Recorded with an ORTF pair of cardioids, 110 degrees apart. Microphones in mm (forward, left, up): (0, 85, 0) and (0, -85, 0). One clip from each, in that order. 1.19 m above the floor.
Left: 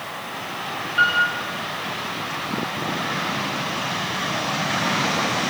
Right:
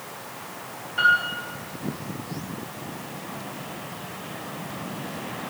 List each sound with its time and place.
1.0 s a piano: 30° left, 2.5 m